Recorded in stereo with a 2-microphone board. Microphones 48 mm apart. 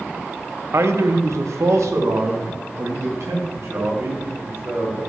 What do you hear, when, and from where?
0.7 s a man speaking: 65° right (ahead or behind), 0.9 m